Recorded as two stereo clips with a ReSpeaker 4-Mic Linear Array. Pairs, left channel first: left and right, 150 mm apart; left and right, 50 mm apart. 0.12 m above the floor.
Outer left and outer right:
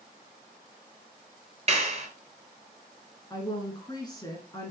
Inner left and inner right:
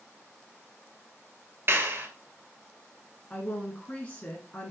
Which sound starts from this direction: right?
A clap, at 1.7 s.